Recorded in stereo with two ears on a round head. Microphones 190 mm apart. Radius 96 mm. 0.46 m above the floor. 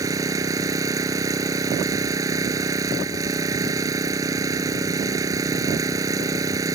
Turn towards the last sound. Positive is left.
turn(degrees=-15)  # may be behind; listen again after turning